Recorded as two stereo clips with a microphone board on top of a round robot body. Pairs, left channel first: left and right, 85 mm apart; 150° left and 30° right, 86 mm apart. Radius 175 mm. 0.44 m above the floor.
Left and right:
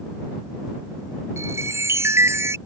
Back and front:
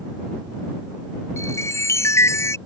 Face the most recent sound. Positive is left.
turn(degrees=-150)